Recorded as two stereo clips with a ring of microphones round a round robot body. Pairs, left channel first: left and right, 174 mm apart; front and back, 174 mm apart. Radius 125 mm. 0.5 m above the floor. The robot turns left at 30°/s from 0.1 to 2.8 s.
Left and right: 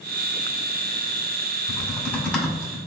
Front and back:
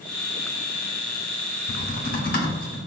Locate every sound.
1.7 s typing on a keyboard: 25° left, 1.9 m; by 2.8 s 5° right, 1.9 m